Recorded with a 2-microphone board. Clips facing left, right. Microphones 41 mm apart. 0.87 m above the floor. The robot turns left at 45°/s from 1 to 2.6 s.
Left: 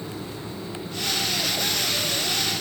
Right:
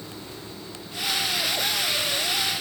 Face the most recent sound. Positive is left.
No sound to turn to.